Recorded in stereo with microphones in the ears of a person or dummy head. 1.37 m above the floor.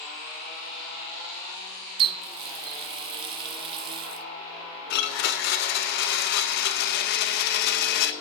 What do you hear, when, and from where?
2.0 s a running tap: 35° right (ahead or behind), 0.6 m
4.9 s a blender: 65° left (ahead or behind), 0.9 m